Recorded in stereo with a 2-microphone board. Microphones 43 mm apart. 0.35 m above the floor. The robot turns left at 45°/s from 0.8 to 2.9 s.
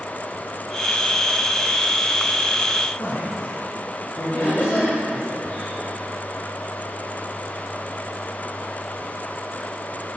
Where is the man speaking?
70° left (ahead or behind), 3 m.